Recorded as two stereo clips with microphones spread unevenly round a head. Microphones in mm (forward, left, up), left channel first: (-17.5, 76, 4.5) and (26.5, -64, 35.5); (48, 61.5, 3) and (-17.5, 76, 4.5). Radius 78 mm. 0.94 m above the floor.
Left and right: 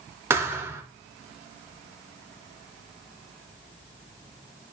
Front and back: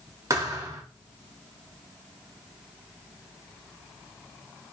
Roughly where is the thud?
Behind right.